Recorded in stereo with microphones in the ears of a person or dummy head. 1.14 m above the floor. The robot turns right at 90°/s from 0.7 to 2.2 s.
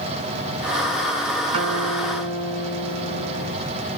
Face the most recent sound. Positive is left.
turn(degrees=-85)